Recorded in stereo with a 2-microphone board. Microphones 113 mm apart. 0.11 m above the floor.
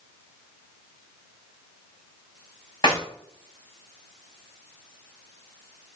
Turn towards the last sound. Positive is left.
turn(degrees=40)  # may be behind; listen again after turning